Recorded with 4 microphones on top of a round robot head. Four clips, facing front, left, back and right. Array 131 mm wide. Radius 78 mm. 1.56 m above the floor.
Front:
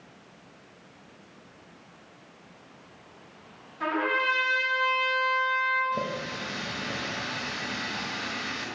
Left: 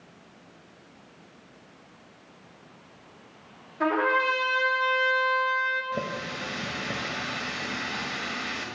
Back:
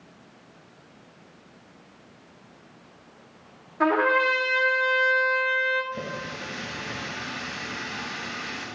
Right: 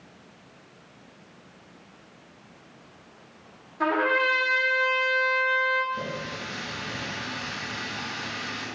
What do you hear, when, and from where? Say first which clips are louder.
3.8 s a trumpet: even, back 6 dB; 170° right, 3 m
5.9 s a running tap: left 1 dB, front 3 dB; 65° left, 1.4 m